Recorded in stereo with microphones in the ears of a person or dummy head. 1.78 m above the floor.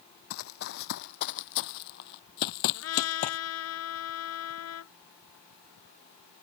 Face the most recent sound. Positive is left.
turn(degrees=80)